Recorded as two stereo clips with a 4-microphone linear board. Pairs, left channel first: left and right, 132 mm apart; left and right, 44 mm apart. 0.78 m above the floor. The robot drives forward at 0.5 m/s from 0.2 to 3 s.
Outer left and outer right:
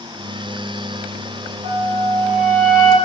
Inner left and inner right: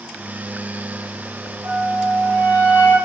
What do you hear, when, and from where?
1.6 s a flute: 80° right, 1.8 m